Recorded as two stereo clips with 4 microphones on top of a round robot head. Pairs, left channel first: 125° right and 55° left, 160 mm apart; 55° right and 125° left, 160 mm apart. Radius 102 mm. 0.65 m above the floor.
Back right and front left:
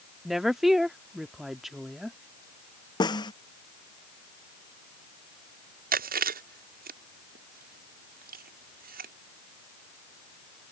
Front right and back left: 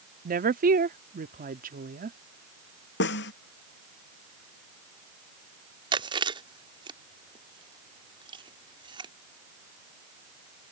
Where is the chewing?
70° left.